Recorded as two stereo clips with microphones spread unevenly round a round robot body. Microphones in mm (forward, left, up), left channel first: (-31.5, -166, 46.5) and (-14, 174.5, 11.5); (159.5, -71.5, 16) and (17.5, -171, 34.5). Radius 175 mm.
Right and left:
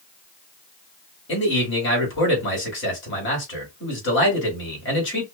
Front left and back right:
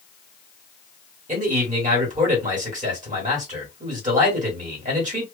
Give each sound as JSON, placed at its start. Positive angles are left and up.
{"t": 1.3, "sound": "a man speaking", "azimuth_deg": -135, "distance_m": 1.6}